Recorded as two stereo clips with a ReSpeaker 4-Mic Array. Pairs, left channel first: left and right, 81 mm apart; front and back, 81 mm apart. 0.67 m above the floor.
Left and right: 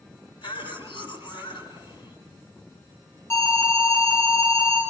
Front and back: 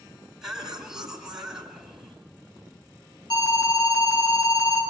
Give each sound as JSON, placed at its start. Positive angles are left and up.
{"t": 0.4, "sound": "a cough", "azimuth_deg": 95, "distance_m": 7.0}
{"t": 3.3, "sound": "an alarm", "azimuth_deg": 30, "distance_m": 7.0}